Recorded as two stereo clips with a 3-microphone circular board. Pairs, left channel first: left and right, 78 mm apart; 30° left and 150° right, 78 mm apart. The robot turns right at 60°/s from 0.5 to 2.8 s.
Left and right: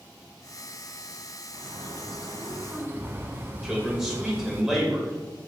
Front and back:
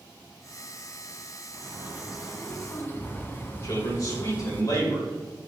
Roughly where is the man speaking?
Ahead.